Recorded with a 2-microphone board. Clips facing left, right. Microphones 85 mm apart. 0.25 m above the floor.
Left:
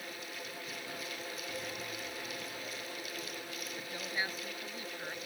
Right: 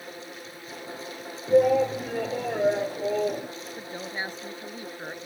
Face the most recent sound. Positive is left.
turn(degrees=-30)  # may be behind; listen again after turning